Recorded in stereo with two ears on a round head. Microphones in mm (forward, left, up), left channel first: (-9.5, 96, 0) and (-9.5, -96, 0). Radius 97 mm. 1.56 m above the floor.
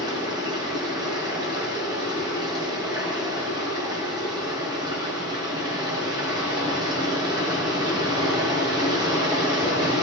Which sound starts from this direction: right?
Running water, at 0.0 s.